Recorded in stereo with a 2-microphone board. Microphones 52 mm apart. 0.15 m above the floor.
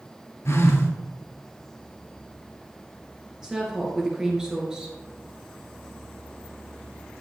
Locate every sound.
0.5 s a phone buzzing: 65° left (ahead or behind), 1.6 m
3.4 s a woman speaking: 15° right (ahead or behind), 2 m